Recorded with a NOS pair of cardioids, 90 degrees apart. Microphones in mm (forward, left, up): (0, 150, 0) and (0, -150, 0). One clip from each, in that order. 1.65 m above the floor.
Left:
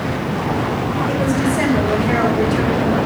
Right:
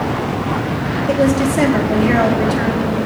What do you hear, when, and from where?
1.1 s a woman speaking: 45° right, 1.9 m